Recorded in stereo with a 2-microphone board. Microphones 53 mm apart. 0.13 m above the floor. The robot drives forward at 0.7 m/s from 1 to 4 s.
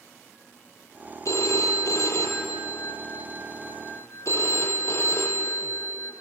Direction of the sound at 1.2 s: 65° left (ahead or behind).